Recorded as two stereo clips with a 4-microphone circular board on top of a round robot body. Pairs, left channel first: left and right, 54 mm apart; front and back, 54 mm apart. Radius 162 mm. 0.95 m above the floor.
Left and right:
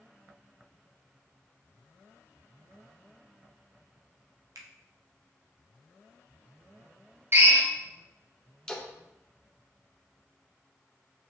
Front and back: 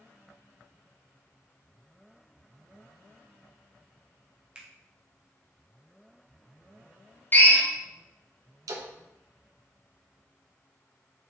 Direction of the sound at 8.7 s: 170° left.